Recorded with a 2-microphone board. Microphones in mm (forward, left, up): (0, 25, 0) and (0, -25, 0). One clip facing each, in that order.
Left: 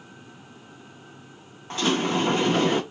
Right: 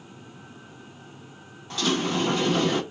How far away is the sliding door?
About 1.1 m.